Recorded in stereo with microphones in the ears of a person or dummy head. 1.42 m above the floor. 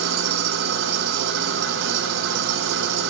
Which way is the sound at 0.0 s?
70° right (ahead or behind).